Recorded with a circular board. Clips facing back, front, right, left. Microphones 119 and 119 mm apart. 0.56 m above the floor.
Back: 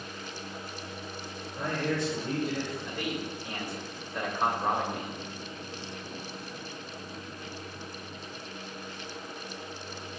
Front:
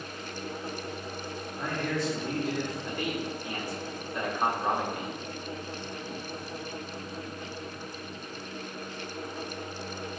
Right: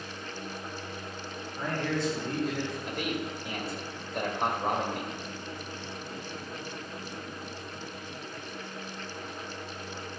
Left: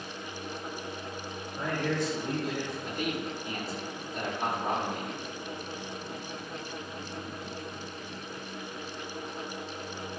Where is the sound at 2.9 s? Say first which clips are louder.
Front 2 dB, even; 110° right, 2 m.